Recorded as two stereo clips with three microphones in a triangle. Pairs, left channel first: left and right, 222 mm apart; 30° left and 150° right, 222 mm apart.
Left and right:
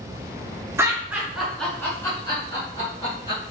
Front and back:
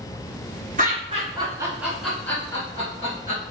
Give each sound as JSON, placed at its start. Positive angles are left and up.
{"t": 0.8, "sound": "laughter", "azimuth_deg": -160, "distance_m": 1.4}